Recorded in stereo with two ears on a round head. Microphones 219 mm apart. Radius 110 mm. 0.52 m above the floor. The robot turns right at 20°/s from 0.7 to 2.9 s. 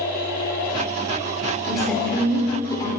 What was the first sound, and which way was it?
A woman speaking, 5° right (ahead or behind).